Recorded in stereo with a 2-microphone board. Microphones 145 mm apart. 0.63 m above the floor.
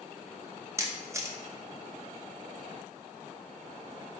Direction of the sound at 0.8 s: 20° right (ahead or behind).